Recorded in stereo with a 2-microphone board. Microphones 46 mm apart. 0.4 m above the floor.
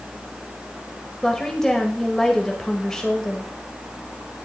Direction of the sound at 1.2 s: 15° left (ahead or behind).